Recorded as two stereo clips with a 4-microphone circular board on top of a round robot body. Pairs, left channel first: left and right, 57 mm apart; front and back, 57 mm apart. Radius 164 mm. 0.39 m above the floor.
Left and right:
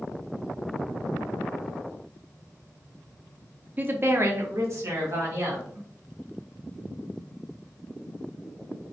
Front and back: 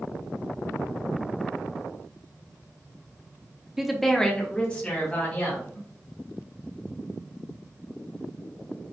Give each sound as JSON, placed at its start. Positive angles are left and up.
{"t": 3.8, "sound": "a woman speaking", "azimuth_deg": -100, "distance_m": 0.8}